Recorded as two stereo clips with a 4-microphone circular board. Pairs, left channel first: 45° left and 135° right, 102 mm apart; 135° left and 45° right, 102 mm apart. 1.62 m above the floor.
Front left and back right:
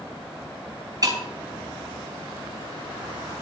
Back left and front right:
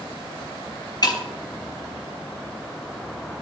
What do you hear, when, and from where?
1.0 s breaking glass: 175° left, 3.5 m